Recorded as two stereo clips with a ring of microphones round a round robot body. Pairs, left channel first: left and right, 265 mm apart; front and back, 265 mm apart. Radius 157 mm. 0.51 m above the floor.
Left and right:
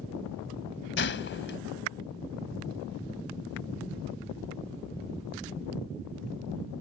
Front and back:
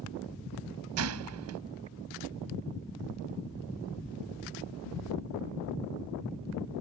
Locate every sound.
1.0 s a gunshot: 140° left